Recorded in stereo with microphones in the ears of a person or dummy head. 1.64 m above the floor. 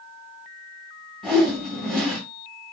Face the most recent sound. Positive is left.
turn(degrees=5)  # may be behind; listen again after turning